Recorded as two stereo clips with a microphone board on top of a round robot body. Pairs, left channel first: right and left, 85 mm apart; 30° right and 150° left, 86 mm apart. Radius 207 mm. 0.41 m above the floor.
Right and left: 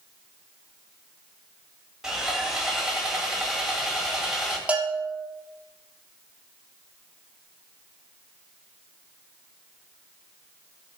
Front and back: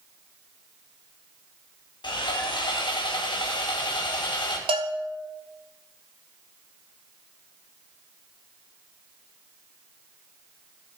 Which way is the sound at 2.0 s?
5° left.